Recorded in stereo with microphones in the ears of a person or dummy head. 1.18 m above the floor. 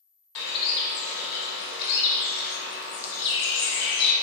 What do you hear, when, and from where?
0.3 s a bird: 60° left (ahead or behind), 0.7 m